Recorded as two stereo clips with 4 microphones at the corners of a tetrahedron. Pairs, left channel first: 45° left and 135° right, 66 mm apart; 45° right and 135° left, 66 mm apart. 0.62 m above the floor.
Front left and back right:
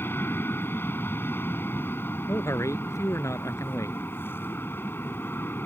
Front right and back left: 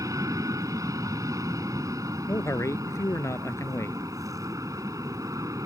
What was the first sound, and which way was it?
An aircraft, 100° left.